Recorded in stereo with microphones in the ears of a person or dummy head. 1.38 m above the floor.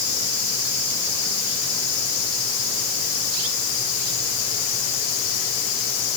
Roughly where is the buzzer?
I don't hear a buzzer.